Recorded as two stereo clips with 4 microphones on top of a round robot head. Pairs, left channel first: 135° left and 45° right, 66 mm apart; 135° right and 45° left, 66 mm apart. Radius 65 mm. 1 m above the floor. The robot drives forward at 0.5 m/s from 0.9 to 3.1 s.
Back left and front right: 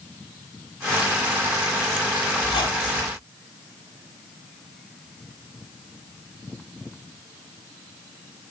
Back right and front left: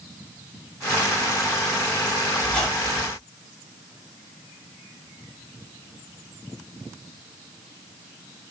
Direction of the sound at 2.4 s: 140° left.